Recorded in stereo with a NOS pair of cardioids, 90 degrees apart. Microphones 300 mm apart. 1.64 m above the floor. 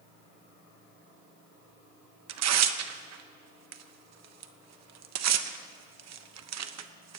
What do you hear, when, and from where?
2.3 s tearing paper: 60° right, 1.0 m